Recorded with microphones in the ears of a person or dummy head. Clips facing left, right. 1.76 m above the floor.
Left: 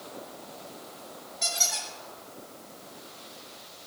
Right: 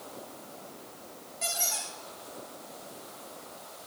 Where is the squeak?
15° right (ahead or behind), 1.6 m.